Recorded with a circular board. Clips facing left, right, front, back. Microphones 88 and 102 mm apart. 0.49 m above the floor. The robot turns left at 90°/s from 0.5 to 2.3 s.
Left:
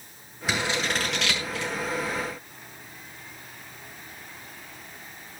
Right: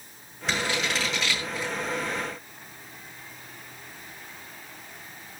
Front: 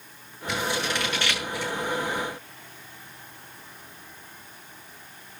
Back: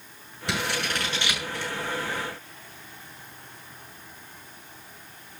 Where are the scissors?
175° left, 7.5 m; by 1.7 s 70° left, 7.5 m.